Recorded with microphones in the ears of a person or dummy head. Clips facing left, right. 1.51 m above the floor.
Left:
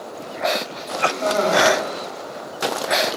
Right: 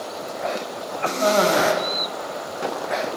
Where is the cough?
45° right (ahead or behind), 1.2 m.